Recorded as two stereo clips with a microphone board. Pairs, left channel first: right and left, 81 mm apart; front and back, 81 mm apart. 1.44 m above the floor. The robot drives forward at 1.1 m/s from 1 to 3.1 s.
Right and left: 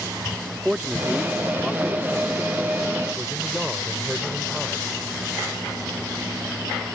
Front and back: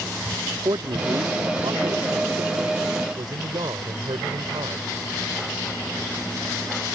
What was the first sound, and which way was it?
A man speaking, 170° left.